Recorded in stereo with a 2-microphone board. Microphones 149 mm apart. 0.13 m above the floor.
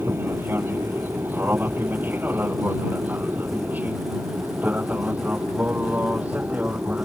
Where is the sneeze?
No sneeze in this recording.